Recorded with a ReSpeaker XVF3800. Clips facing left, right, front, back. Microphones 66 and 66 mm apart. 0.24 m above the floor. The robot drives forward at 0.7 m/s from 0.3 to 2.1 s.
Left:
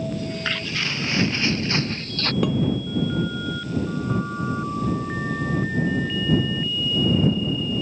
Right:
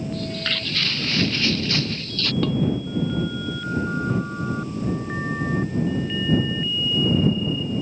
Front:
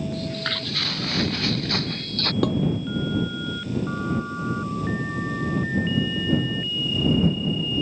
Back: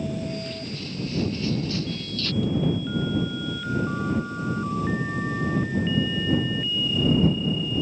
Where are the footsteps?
15° left; by 2.3 s 35° left.